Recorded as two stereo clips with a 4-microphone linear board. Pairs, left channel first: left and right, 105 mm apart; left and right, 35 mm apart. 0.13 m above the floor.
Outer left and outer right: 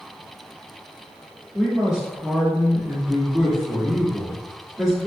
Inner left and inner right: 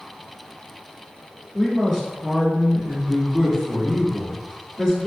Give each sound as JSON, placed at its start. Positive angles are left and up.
{"t": 1.5, "sound": "a man speaking", "side_deg": -5, "distance_m": 1.4}